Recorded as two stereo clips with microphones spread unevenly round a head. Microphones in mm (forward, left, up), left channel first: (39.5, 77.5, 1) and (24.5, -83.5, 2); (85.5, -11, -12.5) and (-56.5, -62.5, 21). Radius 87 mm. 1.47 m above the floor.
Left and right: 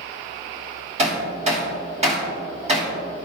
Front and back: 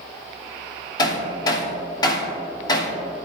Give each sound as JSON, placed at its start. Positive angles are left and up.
{"t": 1.0, "sound": "hammering", "azimuth_deg": -50, "distance_m": 2.5}